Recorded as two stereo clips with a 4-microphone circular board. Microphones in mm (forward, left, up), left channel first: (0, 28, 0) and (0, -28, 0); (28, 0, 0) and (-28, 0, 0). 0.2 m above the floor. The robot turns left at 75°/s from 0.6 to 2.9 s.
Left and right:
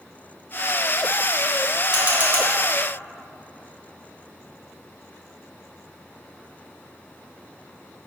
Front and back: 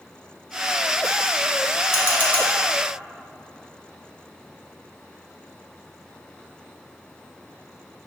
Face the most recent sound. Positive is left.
turn(degrees=-90)